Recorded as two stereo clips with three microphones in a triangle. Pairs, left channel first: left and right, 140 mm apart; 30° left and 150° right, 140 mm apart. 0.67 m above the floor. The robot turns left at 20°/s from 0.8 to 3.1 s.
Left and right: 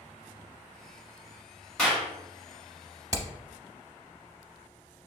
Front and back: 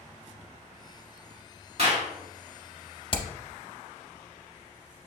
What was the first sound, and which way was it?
A clap, 175° left.